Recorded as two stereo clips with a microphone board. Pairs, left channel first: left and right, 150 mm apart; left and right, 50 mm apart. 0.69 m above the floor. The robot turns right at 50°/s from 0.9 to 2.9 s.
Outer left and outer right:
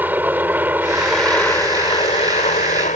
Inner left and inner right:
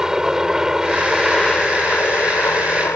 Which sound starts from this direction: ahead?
A helicopter, at 0.0 s.